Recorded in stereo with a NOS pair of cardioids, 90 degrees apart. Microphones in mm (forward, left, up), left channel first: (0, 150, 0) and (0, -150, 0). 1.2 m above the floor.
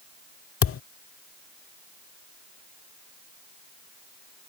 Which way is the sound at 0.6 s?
50° left.